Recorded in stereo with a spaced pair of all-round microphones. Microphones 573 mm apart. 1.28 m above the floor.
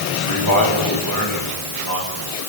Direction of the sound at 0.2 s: 35° left (ahead or behind).